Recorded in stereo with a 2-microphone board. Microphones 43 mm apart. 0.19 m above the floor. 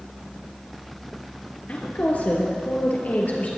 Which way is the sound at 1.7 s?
45° left (ahead or behind).